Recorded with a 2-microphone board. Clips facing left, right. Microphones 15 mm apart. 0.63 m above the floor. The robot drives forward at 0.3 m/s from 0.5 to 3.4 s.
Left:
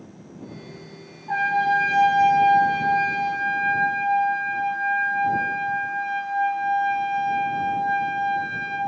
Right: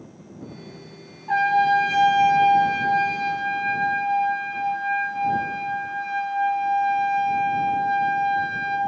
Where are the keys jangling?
No keys jangling in this recording.